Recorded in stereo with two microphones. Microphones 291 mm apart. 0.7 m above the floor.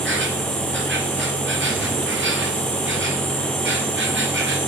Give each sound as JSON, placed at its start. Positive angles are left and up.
{"t": 0.0, "sound": "an insect", "side_deg": -40, "distance_m": 3.0}